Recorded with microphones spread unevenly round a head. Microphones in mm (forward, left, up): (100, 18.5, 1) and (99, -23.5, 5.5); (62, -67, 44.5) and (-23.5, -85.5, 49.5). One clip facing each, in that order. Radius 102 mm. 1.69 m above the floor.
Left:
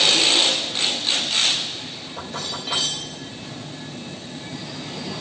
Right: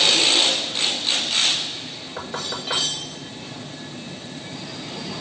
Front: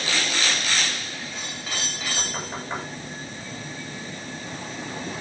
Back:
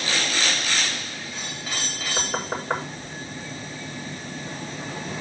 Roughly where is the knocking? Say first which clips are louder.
Right 2 dB, back 4 dB; behind right.